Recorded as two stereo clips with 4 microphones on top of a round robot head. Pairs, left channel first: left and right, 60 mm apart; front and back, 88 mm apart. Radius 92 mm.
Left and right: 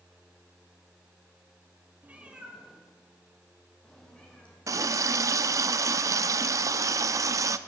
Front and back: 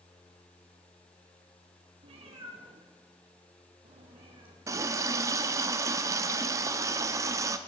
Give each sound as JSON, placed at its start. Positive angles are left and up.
{"t": 2.0, "sound": "a cat meowing", "azimuth_deg": -155, "distance_m": 2.0}
{"t": 4.7, "sound": "a running tap", "azimuth_deg": -125, "distance_m": 0.6}